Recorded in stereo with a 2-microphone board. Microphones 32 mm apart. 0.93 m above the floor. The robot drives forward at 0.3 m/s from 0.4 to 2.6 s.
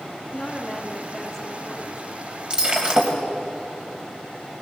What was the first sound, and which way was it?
A woman speaking, 10° left (ahead or behind).